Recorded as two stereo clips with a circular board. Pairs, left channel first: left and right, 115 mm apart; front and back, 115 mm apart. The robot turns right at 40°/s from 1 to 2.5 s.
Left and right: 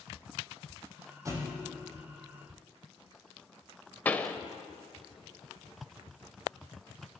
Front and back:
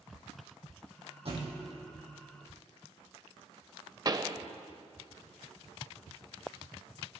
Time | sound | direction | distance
1.2 | a thud | 150° right | 6.5 m
4.0 | a pop | 155° left | 0.7 m